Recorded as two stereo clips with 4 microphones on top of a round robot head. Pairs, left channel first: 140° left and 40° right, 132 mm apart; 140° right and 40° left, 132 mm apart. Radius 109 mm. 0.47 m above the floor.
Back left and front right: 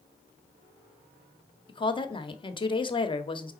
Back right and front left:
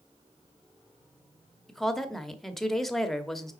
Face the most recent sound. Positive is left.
turn(degrees=130)